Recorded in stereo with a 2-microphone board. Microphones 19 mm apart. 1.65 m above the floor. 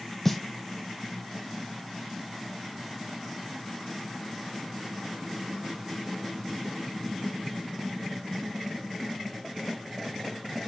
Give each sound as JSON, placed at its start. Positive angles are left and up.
{"t": 0.2, "sound": "a snare drum", "side_deg": 10, "distance_m": 1.0}